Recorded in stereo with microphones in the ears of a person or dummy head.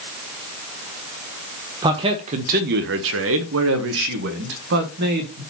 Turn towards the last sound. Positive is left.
turn(degrees=-50)  # may be behind; listen again after turning